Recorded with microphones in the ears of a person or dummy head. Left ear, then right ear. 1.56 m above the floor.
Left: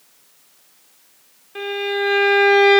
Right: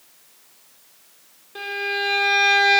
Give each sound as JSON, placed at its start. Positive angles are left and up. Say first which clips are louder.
{"t": 1.6, "sound": "a violin", "louder": "left 2 dB", "side_deg": 25, "distance_m": 1.3}